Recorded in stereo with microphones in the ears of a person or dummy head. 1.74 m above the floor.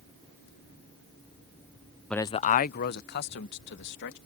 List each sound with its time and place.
2.1 s a man speaking: centre (ahead or behind); by 4.2 s 65° left (ahead or behind)